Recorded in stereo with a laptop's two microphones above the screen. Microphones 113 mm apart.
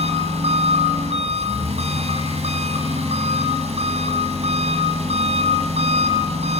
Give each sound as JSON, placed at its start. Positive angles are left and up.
{"t": 0.0, "sound": "an engine running", "side_deg": -75, "distance_m": 6.5}